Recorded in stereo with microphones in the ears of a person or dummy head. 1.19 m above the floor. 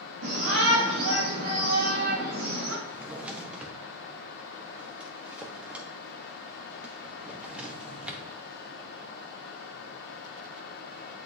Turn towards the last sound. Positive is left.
turn(degrees=-5)  # may be behind; listen again after turning